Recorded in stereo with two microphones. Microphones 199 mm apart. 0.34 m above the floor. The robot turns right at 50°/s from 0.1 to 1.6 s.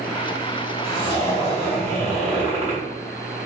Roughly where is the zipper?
Behind left.